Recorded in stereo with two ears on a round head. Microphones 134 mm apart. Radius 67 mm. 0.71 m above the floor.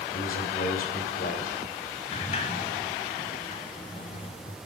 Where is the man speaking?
65° left (ahead or behind), 2.5 m.